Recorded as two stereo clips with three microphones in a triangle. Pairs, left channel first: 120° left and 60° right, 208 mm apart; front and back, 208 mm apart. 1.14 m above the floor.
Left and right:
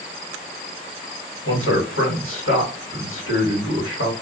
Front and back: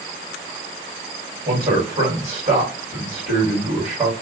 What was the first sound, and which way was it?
A man speaking, 120° left.